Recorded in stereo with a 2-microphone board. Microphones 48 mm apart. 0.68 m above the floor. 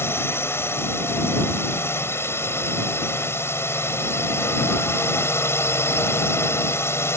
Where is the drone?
60° left (ahead or behind); by 7.2 s 65° left (ahead or behind).